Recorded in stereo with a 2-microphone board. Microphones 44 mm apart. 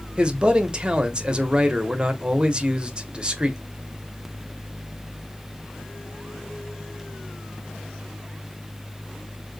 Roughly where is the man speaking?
Right.